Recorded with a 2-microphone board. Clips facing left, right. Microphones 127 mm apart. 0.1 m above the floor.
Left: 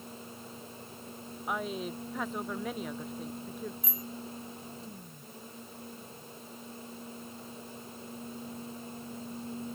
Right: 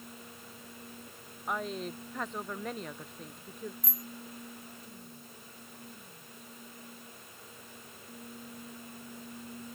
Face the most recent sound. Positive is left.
turn(degrees=0)  # may be behind; listen again after turning